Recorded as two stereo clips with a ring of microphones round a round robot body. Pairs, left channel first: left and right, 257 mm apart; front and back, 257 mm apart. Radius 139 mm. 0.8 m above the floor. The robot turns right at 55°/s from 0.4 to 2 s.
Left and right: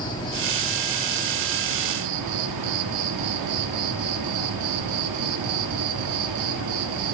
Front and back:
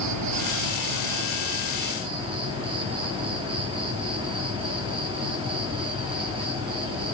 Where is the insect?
165° left, 1.1 m; by 7.1 s 105° right, 1.1 m.